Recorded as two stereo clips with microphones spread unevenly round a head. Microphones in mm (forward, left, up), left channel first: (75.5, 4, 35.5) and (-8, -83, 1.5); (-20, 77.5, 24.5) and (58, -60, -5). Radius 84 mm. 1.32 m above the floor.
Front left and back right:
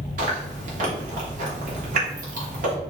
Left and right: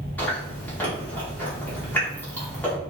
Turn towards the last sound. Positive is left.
turn(degrees=-160)